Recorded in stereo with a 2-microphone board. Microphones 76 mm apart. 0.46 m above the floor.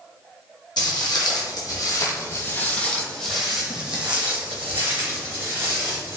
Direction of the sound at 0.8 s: 70° left (ahead or behind).